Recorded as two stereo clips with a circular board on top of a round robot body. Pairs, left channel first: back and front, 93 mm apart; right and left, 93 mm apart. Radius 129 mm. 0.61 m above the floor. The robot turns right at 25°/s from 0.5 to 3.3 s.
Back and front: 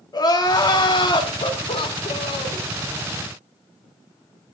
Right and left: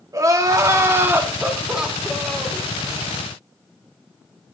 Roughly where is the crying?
Behind left.